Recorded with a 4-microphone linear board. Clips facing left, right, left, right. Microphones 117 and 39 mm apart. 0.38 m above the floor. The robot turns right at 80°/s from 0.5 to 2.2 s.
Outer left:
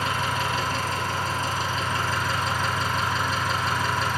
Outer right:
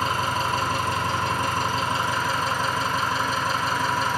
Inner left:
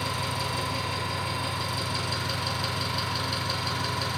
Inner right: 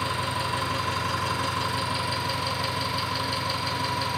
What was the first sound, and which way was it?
An engine running, 140° right.